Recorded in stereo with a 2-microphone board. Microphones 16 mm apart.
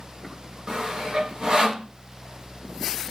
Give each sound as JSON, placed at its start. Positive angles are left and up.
{"t": 0.7, "sound": "sawing", "side_deg": -45, "distance_m": 0.9}